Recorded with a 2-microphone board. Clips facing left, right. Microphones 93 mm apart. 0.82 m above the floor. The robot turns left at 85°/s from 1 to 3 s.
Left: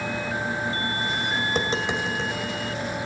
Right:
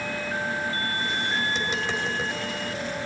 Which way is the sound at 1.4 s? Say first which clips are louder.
Left 2 dB; 55° left (ahead or behind).